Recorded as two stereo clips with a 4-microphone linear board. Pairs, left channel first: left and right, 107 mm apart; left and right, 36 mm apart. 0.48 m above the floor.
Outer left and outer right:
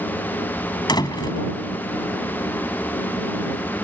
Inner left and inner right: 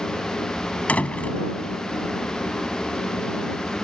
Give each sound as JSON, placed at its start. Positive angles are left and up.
{"t": 0.9, "sound": "a door slam", "side_deg": 45}